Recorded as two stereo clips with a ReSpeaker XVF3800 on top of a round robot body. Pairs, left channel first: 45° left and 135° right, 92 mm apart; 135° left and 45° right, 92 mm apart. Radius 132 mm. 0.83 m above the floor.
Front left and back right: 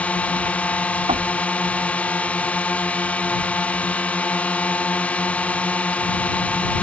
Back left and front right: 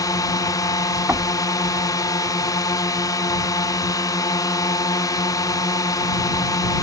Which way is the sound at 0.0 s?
115° left.